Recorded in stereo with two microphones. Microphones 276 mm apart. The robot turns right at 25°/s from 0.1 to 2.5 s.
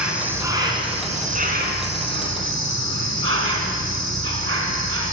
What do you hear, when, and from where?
0.0 s an insect: 175° right, 2 m; by 5.1 s 115° right, 2 m